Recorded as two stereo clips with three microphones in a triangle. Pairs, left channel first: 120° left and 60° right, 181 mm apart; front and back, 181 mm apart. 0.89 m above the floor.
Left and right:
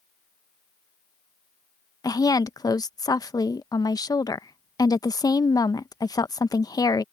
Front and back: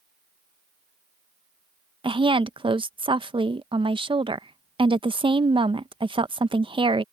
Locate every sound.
2.0 s a woman speaking: 165° left